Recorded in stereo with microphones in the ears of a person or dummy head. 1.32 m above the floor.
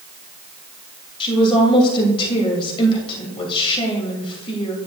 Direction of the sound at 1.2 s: 30° left (ahead or behind).